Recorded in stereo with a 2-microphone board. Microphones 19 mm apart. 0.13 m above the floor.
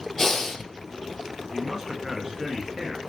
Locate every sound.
0.2 s breathing: 15° left (ahead or behind), 0.8 m
1.5 s a man speaking: 25° right (ahead or behind), 1.3 m